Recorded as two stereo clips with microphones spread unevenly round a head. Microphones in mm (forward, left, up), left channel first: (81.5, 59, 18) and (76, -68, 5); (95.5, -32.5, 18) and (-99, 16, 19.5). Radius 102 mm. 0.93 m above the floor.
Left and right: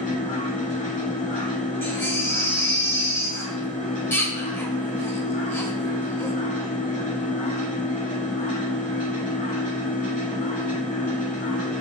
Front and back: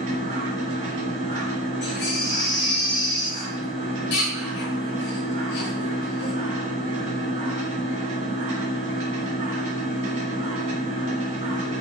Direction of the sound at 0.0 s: 110° left.